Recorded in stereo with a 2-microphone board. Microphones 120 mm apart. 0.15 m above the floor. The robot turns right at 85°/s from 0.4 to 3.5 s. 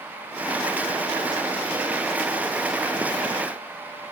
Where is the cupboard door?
I don't hear a cupboard door.